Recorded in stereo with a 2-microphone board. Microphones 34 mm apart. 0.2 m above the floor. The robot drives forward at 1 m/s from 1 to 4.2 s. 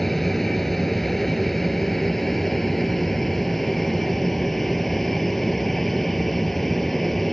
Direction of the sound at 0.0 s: 5° left (ahead or behind).